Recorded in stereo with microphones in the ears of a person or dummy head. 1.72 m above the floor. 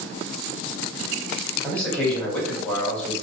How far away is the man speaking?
About 1.3 m.